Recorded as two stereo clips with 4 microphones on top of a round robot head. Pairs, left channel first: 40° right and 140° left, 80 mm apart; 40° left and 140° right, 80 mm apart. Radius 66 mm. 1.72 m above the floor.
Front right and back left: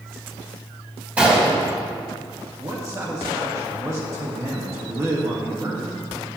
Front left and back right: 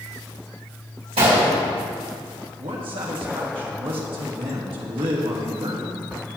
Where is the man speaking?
165° right, 1.6 m.